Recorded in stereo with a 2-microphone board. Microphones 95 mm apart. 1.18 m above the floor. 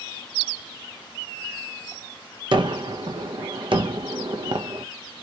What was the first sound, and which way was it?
A gunshot, 60° right (ahead or behind).